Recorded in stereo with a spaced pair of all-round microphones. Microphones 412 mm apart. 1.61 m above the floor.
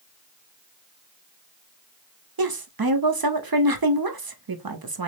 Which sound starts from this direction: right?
A woman speaking, at 2.4 s.